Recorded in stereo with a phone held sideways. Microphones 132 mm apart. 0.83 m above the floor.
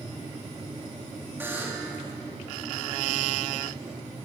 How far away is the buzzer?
About 1.8 m.